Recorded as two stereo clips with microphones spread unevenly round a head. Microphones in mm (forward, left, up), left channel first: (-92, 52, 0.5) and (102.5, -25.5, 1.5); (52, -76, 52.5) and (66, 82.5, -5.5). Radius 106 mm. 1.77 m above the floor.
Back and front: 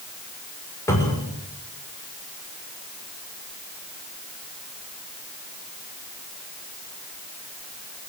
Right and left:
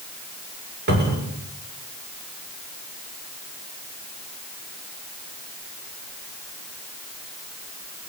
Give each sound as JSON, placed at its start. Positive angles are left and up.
{"t": 0.9, "sound": "a cupboard door", "azimuth_deg": 80, "distance_m": 6.5}